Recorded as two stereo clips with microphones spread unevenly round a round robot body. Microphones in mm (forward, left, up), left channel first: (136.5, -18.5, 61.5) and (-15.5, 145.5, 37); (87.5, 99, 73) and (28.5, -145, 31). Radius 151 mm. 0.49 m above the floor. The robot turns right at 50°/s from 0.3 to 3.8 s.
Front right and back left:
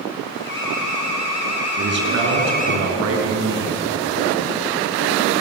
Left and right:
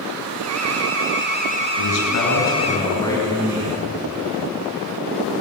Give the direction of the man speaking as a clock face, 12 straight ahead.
9 o'clock.